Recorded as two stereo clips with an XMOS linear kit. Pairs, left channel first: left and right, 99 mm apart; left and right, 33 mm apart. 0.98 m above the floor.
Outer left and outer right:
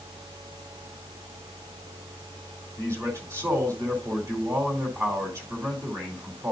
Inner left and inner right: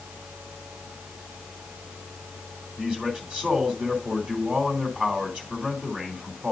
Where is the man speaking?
35° right (ahead or behind), 2.5 m.